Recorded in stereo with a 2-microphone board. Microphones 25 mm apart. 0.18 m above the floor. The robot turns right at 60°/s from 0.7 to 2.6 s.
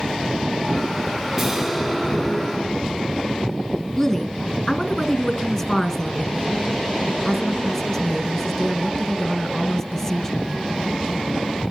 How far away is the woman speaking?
About 1.8 m.